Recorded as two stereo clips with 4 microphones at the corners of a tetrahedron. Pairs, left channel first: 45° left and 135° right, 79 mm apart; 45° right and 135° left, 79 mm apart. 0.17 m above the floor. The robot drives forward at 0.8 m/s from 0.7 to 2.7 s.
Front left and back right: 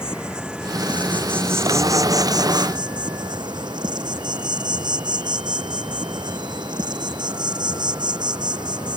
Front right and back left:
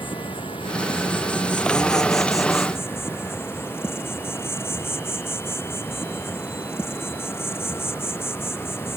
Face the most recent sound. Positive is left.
turn(degrees=-105)